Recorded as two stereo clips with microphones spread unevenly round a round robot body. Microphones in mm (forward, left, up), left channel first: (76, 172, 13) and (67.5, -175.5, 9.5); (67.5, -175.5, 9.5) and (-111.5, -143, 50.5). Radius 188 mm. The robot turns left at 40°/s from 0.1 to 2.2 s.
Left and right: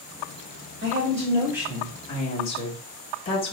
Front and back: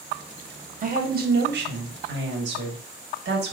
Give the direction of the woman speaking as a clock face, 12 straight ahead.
5 o'clock.